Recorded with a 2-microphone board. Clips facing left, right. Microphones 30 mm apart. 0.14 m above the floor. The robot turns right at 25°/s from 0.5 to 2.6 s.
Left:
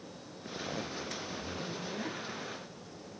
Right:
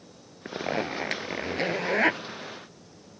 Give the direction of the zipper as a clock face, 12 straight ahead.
4 o'clock.